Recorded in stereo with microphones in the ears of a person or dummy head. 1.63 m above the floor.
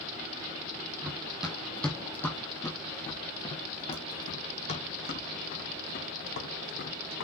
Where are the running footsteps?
10° right (ahead or behind), 2.5 m; by 7.2 s 60° left (ahead or behind), 4.5 m.